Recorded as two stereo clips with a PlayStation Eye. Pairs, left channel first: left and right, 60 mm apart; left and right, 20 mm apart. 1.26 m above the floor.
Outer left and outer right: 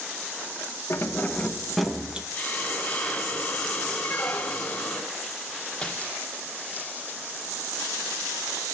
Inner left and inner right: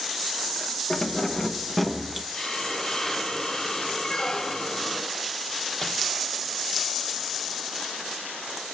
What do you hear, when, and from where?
0.9 s keys jangling: 45° left (ahead or behind), 0.7 m; by 2.2 s 15° right (ahead or behind), 0.8 m
2.3 s a hiss: 20° left (ahead or behind), 1.5 m
4.0 s a squeak: 25° left (ahead or behind), 0.8 m
5.8 s crumpling: 15° left (ahead or behind), 1.2 m